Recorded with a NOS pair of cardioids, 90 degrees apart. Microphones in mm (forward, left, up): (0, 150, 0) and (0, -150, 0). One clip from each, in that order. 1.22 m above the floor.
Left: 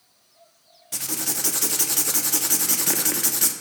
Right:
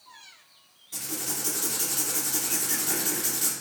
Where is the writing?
45° left, 0.5 m.